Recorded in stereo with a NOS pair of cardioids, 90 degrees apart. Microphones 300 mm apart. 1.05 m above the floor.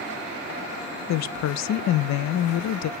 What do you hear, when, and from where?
1.1 s a woman speaking: 60° left, 0.6 m